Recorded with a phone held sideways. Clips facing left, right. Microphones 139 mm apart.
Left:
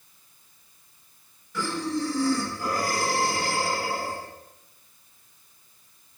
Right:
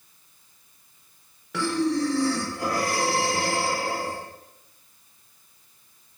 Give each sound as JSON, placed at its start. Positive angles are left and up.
{"t": 1.5, "sound": "breathing", "side_deg": -80, "distance_m": 0.7}